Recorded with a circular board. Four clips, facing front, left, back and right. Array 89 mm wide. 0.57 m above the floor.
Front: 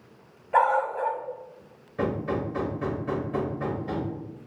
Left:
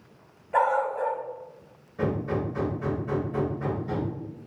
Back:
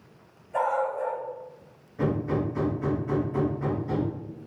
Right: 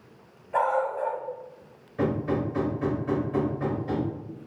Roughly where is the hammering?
Ahead right.